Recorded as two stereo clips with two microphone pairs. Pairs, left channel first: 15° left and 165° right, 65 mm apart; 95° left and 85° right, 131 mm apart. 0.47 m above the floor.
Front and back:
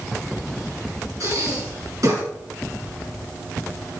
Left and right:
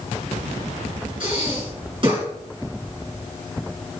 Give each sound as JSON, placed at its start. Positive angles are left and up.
{"t": 1.2, "sound": "breathing", "azimuth_deg": -130, "distance_m": 6.0}